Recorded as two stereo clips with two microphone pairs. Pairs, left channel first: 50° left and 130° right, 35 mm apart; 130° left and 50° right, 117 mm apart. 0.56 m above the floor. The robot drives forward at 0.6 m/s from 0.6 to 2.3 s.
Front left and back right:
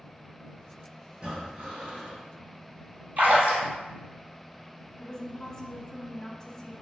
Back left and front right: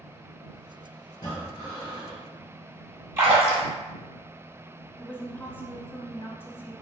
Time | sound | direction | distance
1.1 | breathing | 170° left | 1.0 m
3.2 | a splash | 115° right | 1.4 m
5.0 | a woman speaking | 85° left | 0.7 m